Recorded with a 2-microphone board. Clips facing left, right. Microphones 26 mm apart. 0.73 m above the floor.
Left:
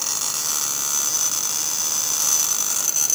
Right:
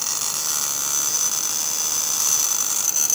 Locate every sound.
Only background noise.